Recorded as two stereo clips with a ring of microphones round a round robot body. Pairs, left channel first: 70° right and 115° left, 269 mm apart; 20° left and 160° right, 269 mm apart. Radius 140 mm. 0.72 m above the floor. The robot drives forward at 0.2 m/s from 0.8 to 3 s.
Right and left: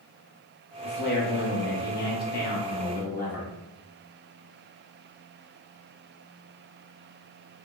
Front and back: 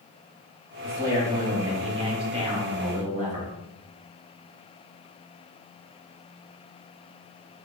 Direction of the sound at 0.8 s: 80° right.